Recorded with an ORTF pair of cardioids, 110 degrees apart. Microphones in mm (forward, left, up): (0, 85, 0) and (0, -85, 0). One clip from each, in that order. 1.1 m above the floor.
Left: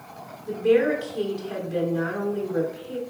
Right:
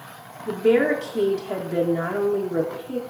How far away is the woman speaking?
About 0.5 m.